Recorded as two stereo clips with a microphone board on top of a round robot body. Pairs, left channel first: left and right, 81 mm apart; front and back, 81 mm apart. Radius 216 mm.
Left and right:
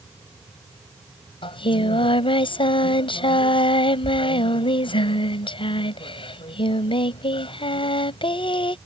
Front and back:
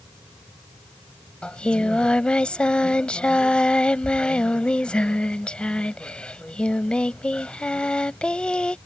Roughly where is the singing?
Left.